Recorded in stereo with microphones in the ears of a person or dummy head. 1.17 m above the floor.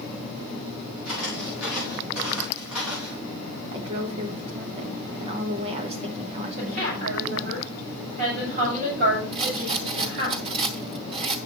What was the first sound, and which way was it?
Footsteps, 10° right (ahead or behind).